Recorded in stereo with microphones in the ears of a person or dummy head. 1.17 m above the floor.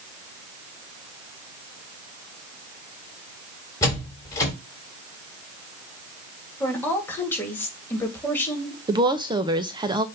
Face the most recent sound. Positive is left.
turn(degrees=-25)  # may be behind; listen again after turning